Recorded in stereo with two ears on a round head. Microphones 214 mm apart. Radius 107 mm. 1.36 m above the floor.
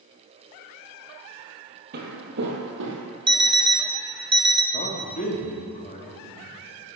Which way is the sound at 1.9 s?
45° right (ahead or behind).